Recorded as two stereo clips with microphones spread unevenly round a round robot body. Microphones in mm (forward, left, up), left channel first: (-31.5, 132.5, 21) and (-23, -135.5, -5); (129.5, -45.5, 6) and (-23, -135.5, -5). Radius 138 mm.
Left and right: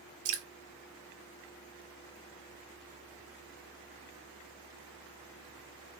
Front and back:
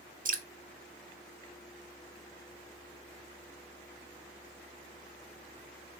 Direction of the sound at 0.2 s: 105° right.